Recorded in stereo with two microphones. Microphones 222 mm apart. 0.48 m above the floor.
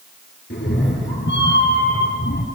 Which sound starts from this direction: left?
A cat meowing, at 0.5 s.